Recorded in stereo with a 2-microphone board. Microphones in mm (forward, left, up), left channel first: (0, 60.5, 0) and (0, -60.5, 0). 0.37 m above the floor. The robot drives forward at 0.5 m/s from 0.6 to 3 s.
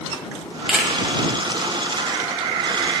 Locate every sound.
0.7 s a camera shutter: 5° right (ahead or behind), 1.8 m